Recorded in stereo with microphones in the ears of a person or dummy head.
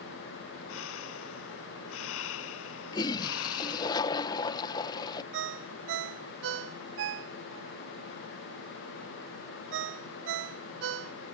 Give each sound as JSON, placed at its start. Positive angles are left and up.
{"t": 0.7, "sound": "breathing", "side_deg": 80}
{"t": 2.9, "sound": "a toilet flushing", "side_deg": 25}
{"t": 5.3, "sound": "a ringtone", "side_deg": -65}